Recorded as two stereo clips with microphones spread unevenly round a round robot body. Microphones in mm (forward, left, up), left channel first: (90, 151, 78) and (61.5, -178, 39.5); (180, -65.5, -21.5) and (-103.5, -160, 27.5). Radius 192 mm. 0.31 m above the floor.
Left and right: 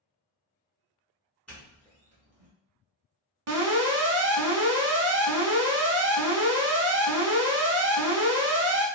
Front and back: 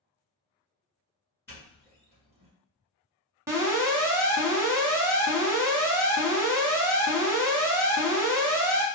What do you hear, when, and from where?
1.5 s a doorbell: 15° right, 1.4 m
3.5 s an alarm: 75° right, 0.9 m